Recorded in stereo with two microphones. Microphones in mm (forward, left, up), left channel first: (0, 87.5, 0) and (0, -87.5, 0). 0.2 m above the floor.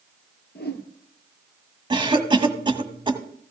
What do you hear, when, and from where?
0.6 s a whoosh: 75° left (ahead or behind), 1.4 m
1.9 s a cough: 30° right (ahead or behind), 1.0 m